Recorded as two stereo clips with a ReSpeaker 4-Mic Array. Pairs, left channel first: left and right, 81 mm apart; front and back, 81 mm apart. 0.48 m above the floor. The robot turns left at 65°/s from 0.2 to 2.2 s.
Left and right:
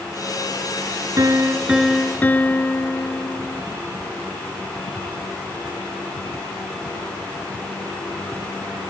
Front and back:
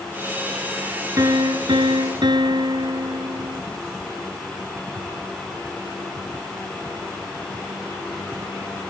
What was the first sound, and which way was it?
A piano, 135° right.